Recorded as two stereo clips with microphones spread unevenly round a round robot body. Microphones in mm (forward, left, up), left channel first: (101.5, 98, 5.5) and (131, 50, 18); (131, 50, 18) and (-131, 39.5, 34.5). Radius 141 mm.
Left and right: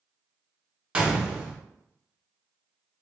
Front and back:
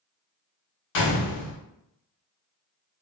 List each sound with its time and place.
0.9 s a gunshot: 10° left, 0.8 m